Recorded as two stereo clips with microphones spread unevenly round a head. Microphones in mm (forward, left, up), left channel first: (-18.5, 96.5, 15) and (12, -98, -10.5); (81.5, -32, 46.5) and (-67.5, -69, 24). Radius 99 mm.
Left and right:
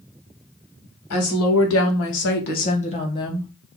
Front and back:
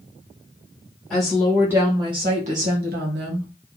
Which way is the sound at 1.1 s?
100° left.